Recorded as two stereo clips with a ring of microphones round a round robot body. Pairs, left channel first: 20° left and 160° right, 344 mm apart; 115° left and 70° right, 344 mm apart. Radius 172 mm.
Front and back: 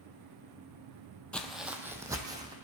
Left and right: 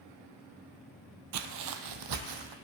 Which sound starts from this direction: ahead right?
Footsteps, at 1.3 s.